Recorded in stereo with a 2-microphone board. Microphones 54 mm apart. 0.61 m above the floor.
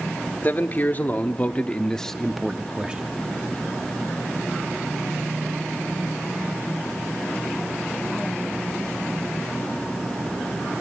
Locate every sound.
0.4 s a man speaking: 40° left (ahead or behind), 1.8 m; by 3.0 s 20° right (ahead or behind), 1.2 m